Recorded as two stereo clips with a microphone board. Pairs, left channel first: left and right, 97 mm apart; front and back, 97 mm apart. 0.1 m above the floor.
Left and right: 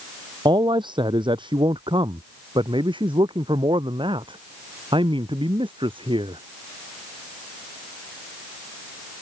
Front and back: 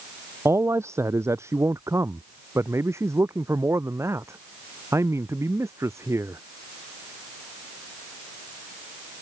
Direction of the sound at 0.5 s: 120° right.